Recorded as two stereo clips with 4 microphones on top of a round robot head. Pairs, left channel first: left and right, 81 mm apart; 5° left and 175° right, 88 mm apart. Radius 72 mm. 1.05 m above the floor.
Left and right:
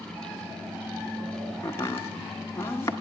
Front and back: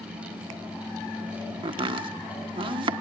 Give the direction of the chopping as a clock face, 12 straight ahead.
7 o'clock.